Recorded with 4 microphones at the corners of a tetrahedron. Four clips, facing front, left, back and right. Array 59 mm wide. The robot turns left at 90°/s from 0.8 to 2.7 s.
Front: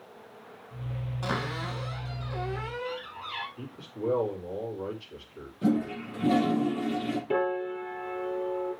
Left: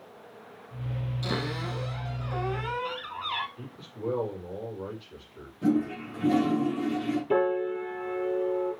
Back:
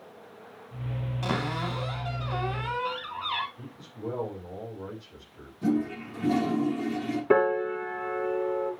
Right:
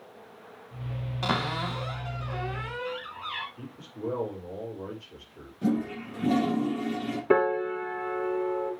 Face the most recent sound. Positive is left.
turn(degrees=-130)